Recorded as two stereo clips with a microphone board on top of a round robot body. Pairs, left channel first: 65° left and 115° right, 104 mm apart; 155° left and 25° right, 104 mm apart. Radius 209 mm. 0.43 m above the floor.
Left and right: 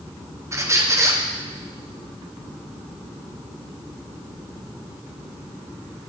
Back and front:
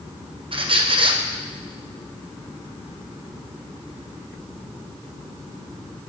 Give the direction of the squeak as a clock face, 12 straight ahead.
2 o'clock.